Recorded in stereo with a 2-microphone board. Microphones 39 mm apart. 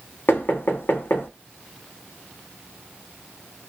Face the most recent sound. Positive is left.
turn(degrees=65)  # may be behind; listen again after turning